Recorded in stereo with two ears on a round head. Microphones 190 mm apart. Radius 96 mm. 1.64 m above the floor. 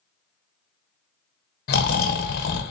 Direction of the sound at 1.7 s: 50° left (ahead or behind).